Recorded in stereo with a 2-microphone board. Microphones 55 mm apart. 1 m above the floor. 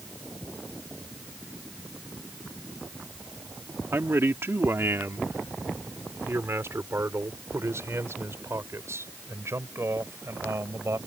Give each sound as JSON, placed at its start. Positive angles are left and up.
{"t": 3.9, "sound": "a man speaking", "side_deg": -45}